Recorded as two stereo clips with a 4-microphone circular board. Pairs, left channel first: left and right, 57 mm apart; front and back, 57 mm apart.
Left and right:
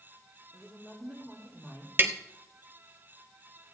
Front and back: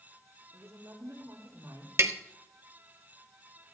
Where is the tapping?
140° right, 1.0 m.